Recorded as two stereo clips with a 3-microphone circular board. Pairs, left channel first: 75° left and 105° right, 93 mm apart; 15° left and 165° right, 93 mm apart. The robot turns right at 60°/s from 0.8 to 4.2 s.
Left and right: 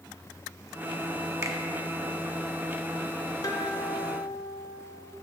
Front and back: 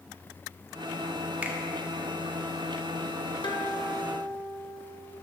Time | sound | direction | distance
1.4 | a finger snap | 110° right | 0.6 m
3.4 | a guitar | 30° left | 0.8 m